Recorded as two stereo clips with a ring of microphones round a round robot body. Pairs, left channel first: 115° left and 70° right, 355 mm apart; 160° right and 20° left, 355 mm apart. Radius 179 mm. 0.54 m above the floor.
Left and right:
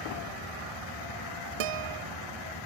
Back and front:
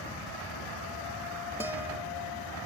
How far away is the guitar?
About 0.5 m.